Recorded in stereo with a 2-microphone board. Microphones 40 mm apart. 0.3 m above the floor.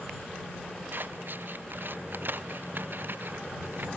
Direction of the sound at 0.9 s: 55° right (ahead or behind).